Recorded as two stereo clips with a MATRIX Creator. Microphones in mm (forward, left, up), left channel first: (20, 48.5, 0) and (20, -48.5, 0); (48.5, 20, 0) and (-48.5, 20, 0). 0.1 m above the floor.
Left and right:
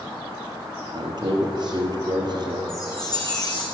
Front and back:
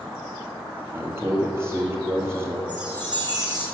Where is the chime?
140° left, 2.5 m.